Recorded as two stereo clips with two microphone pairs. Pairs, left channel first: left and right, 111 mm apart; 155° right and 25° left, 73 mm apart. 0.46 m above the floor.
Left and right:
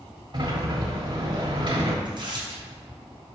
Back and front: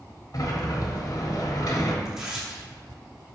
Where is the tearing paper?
55° right, 2 m.